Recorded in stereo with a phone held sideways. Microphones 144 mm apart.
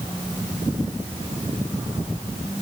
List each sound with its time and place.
Only background noise.